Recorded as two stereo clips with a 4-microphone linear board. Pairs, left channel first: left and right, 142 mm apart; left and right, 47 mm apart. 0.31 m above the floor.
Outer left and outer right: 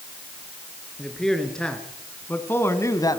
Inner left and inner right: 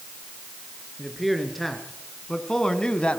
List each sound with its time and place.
1.0 s a man speaking: centre (ahead or behind), 4 m; by 3.2 s 30° left (ahead or behind), 1.8 m